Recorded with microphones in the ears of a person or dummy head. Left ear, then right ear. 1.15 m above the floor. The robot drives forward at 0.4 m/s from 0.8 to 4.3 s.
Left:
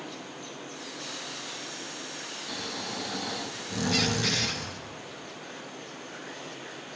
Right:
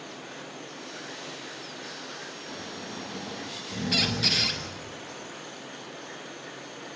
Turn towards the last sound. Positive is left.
turn(degrees=-25)  # may be behind; listen again after turning